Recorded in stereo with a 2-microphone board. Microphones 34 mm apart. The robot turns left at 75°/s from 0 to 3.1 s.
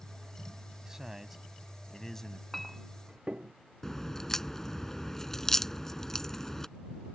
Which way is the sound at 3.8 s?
15° left (ahead or behind).